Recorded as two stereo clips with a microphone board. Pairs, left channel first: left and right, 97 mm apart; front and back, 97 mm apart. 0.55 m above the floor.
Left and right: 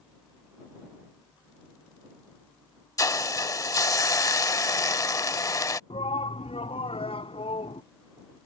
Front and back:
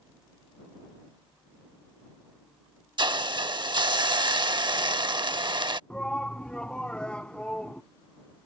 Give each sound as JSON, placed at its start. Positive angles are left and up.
{"t": 3.0, "sound": "a hiss", "azimuth_deg": 140}
{"t": 5.9, "sound": "a shout", "azimuth_deg": 80}